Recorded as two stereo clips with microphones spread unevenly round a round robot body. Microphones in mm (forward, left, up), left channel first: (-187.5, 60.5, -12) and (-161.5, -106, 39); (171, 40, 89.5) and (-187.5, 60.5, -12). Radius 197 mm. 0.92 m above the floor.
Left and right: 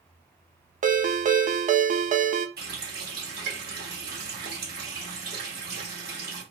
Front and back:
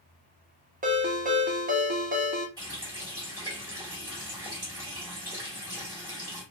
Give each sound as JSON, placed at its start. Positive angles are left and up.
{"t": 0.8, "sound": "a ringtone", "azimuth_deg": -110, "distance_m": 0.6}
{"t": 2.6, "sound": "a running tap", "azimuth_deg": -100, "distance_m": 1.7}